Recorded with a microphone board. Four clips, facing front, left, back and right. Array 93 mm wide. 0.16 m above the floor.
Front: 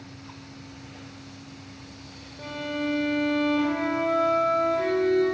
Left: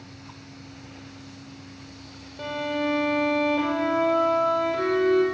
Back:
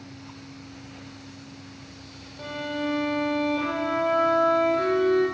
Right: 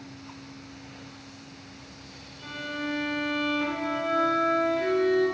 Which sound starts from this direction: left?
A violin, at 2.4 s.